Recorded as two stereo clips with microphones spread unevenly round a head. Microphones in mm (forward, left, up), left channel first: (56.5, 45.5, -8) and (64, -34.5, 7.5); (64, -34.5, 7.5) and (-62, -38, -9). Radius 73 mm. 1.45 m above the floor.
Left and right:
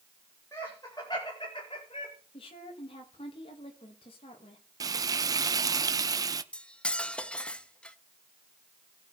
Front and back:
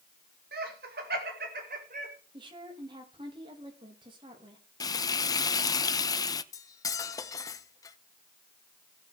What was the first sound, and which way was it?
Laughter, 170° left.